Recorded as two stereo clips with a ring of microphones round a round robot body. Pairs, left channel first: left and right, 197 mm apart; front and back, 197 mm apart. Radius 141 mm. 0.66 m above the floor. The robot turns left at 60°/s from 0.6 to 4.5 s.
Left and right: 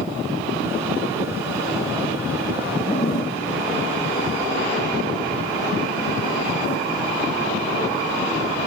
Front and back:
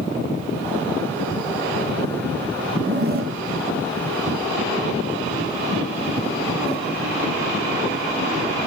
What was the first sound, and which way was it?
A zipper, 165° left.